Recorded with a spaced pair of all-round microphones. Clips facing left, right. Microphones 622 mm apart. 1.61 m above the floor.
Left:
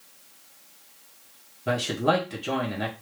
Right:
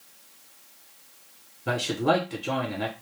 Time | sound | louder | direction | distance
1.7 | a man speaking | even | 5° left (ahead or behind) | 0.8 m